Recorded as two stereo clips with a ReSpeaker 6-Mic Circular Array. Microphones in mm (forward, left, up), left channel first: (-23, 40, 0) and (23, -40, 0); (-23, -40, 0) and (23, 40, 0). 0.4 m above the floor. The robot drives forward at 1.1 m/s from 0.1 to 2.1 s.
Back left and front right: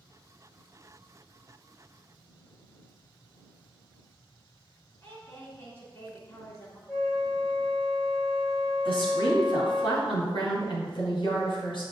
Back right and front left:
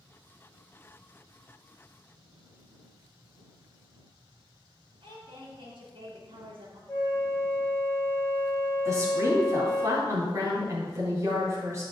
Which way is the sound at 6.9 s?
170° right.